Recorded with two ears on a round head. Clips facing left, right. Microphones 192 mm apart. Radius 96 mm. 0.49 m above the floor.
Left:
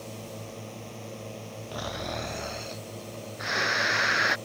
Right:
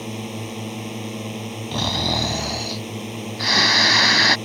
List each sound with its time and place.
0.0 s a drone: 80° right
1.7 s snoring: 85° right